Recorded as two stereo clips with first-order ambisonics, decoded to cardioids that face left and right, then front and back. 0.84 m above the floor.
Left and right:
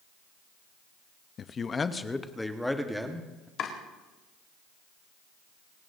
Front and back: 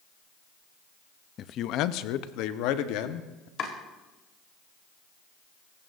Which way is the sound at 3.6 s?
45° left.